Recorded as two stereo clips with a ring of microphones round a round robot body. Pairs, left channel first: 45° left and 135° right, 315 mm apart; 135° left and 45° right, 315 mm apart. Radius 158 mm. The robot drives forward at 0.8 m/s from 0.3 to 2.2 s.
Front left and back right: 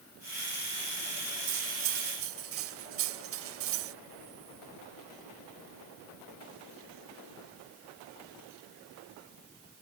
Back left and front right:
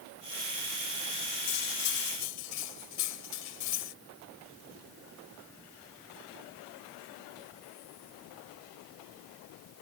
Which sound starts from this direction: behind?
Cutlery clinking, at 1.5 s.